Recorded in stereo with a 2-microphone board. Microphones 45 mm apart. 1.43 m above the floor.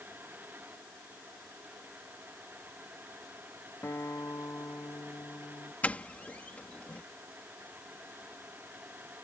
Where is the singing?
I don't hear singing.